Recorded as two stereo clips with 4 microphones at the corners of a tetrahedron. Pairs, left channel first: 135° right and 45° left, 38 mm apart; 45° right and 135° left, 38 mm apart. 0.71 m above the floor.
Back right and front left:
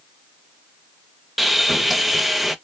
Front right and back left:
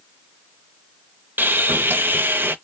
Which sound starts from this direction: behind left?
Sawing, at 1.4 s.